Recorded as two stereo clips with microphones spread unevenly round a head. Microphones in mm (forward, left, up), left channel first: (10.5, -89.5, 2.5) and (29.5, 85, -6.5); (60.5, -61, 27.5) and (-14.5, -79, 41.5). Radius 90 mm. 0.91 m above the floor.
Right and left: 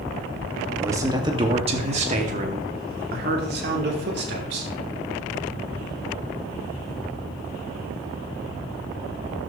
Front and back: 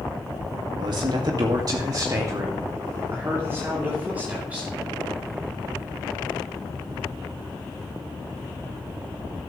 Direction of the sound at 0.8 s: 160° left.